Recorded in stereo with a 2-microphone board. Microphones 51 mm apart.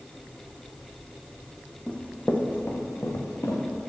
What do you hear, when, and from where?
1.9 s running footsteps: 20° left (ahead or behind), 1.3 m; by 3.6 s 70° left (ahead or behind), 2.0 m